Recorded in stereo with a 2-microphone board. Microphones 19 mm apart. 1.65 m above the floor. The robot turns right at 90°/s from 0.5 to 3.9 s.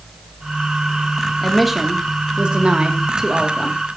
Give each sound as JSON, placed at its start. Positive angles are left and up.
{"t": 1.4, "sound": "a woman speaking", "azimuth_deg": 165, "distance_m": 2.5}